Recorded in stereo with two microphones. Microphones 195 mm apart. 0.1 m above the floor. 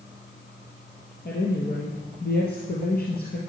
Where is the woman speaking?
55° left (ahead or behind), 2.5 m.